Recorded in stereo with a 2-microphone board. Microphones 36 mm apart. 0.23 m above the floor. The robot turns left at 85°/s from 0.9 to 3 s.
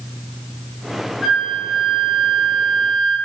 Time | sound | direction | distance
1.2 | a flute | 15° right (ahead or behind) | 1.3 m